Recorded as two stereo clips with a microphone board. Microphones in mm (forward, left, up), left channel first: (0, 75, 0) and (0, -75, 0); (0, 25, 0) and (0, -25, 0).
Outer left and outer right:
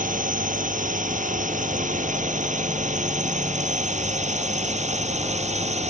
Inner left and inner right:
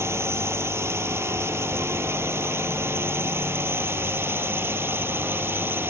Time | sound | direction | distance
0.0 | a drone | 65° right (ahead or behind) | ?